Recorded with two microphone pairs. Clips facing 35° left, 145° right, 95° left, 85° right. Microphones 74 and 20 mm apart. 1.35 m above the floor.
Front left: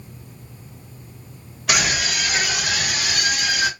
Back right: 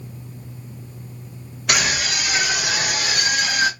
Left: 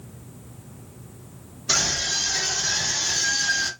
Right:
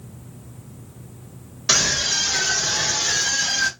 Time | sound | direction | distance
1.7 | a scream | 50° right | 1.3 m